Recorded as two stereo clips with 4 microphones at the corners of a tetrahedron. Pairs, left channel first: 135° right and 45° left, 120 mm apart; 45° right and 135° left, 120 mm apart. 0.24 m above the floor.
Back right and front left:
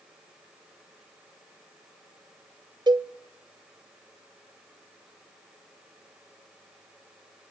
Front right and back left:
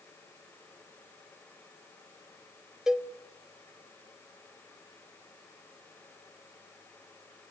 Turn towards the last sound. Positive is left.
turn(degrees=55)